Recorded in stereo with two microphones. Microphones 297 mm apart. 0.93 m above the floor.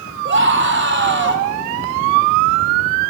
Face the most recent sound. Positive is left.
turn(degrees=-35)  # may be behind; listen again after turning